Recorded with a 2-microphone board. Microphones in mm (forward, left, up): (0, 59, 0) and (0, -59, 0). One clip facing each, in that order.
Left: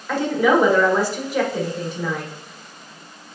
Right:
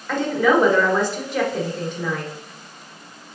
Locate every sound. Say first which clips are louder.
0.1 s a woman speaking: even; 5° left (ahead or behind), 1.2 m